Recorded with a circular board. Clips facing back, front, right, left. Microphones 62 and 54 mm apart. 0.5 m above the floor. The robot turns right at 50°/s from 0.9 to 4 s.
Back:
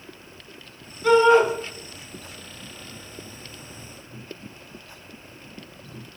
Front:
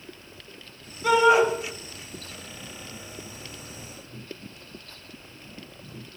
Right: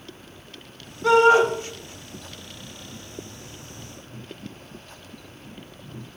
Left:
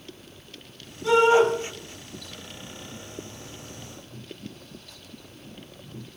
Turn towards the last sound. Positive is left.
turn(degrees=65)